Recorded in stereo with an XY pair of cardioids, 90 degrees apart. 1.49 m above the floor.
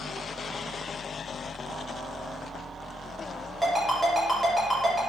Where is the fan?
60° right, 1.1 m.